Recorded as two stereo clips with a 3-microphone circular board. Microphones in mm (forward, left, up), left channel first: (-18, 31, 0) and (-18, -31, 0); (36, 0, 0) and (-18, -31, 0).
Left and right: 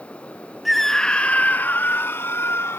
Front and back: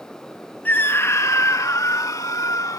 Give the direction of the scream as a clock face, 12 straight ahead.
12 o'clock.